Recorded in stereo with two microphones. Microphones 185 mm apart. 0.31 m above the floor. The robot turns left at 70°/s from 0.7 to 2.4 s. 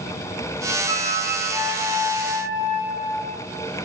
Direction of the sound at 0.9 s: 100° left.